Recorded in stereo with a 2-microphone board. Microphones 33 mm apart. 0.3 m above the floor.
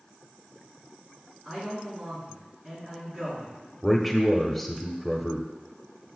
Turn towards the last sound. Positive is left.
turn(degrees=0)  # may be behind; listen again after turning